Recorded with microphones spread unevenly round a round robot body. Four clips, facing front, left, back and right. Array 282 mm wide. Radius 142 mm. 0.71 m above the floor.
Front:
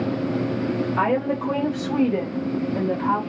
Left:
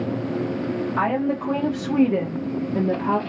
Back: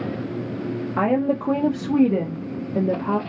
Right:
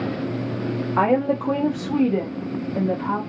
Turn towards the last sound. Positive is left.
turn(degrees=135)